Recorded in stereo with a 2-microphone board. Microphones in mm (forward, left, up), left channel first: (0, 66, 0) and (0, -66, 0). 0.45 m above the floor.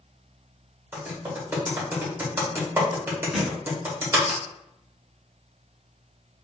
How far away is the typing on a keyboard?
About 1.8 m.